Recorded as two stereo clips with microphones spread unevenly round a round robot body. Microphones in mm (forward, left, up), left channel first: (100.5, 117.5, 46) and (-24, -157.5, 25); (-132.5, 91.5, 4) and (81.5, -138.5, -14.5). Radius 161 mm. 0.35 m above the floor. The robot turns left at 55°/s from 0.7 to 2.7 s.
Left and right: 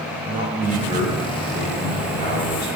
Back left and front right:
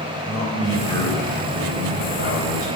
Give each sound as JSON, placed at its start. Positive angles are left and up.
{"t": 0.2, "sound": "a man speaking", "azimuth_deg": -145, "distance_m": 1.6}